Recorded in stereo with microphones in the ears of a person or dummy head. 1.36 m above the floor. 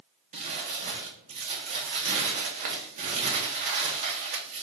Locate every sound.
0.3 s crumpling: 35° right (ahead or behind), 0.5 m